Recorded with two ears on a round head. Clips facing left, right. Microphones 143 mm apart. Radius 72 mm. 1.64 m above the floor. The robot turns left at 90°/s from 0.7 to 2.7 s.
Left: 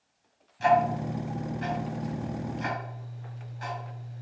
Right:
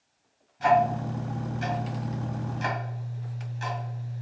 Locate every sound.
0.6 s ticking: 30° left (ahead or behind), 2.5 m; by 4.2 s 30° right (ahead or behind), 2.5 m